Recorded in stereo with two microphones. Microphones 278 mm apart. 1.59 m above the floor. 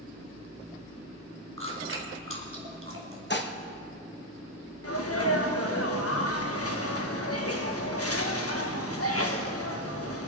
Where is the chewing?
55° right (ahead or behind), 2.5 m.